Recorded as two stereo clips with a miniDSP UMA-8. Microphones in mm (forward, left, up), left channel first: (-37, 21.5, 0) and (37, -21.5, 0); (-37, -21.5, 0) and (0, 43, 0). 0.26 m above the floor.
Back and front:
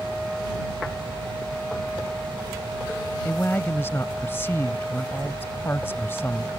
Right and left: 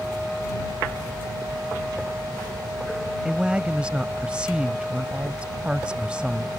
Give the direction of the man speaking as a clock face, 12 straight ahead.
8 o'clock.